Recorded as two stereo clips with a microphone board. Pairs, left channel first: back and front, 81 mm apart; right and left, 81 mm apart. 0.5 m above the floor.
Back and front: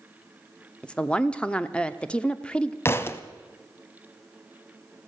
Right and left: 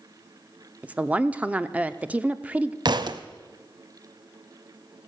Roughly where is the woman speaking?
Behind left.